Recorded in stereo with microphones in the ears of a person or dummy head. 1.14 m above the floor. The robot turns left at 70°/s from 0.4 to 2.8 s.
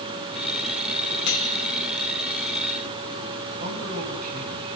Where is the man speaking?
45° right (ahead or behind), 7.5 m.